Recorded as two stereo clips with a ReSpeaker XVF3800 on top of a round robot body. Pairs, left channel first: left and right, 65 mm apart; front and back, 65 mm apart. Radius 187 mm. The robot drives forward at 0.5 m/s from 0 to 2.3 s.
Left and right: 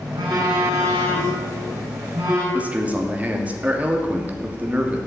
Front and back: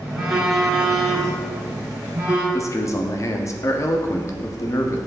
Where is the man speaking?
25° right, 1.6 m.